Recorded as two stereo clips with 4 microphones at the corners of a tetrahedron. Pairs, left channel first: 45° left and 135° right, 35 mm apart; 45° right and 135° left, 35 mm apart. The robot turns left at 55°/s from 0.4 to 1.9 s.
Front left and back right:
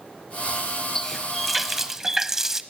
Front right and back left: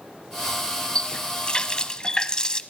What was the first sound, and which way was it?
A running tap, 20° right.